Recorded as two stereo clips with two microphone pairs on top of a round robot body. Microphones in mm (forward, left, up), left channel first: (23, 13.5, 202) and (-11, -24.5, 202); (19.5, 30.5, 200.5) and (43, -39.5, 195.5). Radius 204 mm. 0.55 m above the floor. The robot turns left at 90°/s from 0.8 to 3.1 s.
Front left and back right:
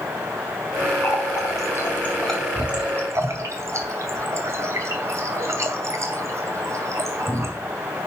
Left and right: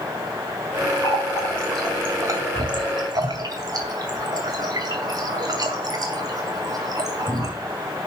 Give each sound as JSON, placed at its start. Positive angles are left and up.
{"t": 1.0, "sound": "a running tap", "azimuth_deg": 80, "distance_m": 3.0}